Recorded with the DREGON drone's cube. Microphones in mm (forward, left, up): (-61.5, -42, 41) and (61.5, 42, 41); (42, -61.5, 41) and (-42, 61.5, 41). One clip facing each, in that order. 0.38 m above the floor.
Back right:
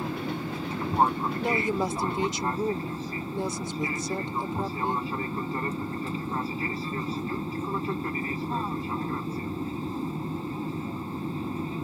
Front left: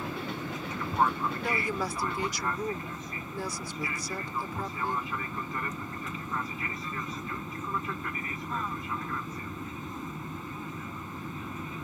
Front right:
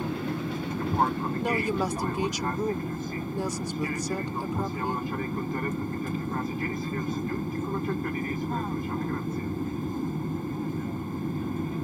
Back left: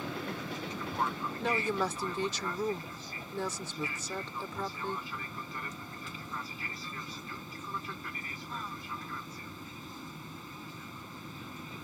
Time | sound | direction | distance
0.0 | an aircraft | 90° right | ?
1.4 | a woman speaking | 115° right | ?